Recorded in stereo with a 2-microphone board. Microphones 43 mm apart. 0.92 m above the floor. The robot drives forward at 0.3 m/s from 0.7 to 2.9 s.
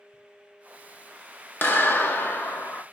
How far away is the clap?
About 0.8 m.